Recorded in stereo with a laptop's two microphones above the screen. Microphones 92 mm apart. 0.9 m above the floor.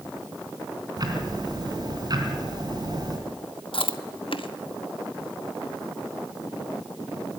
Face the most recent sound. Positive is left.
turn(degrees=70)  # may be behind; listen again after turning